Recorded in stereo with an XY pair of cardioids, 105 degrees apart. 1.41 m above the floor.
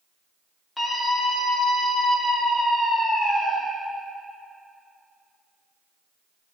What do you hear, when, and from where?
0.8 s a scream: 20° left, 2.5 m